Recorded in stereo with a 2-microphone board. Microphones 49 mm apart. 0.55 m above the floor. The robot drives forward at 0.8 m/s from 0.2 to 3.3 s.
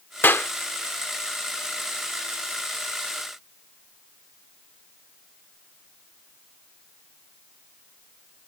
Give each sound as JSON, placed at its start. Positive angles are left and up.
{"t": 0.2, "sound": "a clap", "side_deg": 50}